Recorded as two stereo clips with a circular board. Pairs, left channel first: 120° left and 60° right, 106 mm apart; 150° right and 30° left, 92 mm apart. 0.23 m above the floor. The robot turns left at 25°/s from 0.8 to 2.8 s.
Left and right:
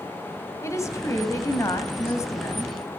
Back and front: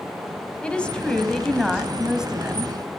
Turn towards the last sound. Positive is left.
turn(degrees=90)